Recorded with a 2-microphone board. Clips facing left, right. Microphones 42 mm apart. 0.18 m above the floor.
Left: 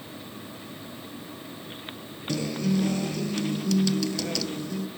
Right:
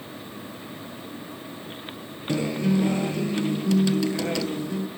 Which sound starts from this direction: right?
A guitar, at 2.3 s.